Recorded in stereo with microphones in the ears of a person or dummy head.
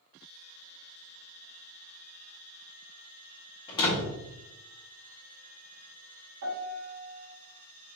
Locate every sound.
3.7 s a door slam: 25° left (ahead or behind), 1.2 m
6.4 s a piano: 65° right (ahead or behind), 1.4 m